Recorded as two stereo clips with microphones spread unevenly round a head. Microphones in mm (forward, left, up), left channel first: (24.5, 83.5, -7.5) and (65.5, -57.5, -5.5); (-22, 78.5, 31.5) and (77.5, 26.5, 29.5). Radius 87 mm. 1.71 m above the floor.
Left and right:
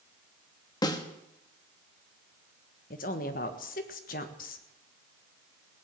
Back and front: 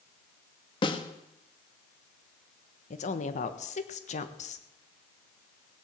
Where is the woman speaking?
140° left, 1.4 m.